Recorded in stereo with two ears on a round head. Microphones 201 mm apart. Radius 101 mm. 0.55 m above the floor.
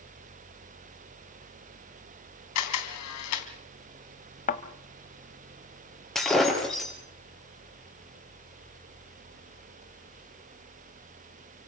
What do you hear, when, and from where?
2.5 s a camera shutter: 80° left, 3.5 m
4.5 s a thud: 35° left (ahead or behind), 1.3 m
6.2 s breaking glass: centre (ahead or behind), 4.5 m